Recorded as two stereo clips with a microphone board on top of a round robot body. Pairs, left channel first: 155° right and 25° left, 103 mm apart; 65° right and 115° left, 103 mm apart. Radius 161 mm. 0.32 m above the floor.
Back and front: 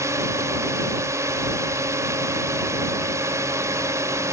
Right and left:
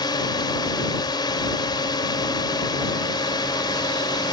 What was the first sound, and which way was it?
A drone, 35° right.